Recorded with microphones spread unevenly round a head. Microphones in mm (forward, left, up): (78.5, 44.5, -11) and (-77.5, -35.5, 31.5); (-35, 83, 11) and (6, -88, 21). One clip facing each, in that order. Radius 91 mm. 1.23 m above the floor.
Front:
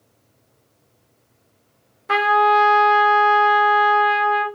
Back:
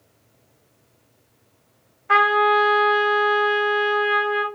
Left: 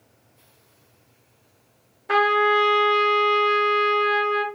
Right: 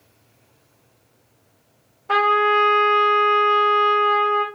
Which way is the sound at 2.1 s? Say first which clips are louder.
Front 2 dB, even; 30° left.